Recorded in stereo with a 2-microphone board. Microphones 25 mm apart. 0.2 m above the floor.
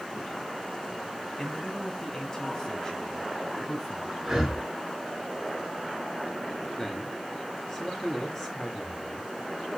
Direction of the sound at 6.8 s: 15° left (ahead or behind).